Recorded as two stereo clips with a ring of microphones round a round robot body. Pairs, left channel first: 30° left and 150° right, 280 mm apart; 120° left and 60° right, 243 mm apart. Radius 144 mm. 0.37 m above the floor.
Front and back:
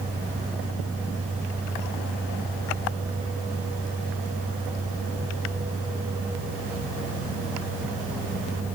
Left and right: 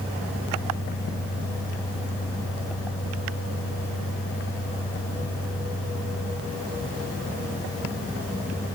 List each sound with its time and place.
Only background noise.